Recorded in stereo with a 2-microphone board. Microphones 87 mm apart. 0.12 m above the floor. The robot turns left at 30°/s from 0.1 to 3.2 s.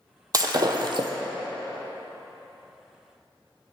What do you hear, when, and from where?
0.3 s breaking glass: 45° right (ahead or behind), 0.6 m; by 1.1 s 65° right (ahead or behind), 0.6 m